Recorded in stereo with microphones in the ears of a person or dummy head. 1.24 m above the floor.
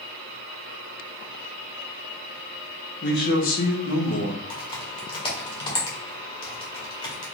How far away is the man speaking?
About 1.1 m.